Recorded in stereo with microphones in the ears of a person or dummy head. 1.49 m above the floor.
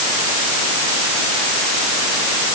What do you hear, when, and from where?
Only background noise.